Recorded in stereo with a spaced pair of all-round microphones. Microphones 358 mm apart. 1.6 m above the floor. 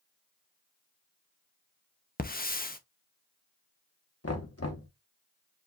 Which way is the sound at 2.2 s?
25° left (ahead or behind).